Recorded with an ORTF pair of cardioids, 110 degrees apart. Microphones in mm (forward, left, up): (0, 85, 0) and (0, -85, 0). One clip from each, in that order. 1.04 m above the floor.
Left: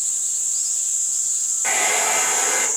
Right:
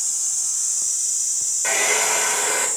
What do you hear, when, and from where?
1.6 s a hair dryer: 10° left, 1.4 m